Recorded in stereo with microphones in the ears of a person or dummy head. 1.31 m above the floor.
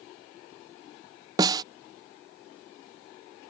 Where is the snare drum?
25° right (ahead or behind).